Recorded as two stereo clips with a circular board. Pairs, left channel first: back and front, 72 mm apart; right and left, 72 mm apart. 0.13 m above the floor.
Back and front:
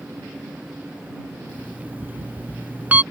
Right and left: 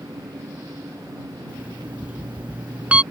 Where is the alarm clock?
35° left.